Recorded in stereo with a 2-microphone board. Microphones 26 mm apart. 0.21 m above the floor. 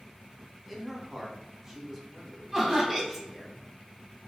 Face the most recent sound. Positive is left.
turn(degrees=-10)  # may be behind; listen again after turning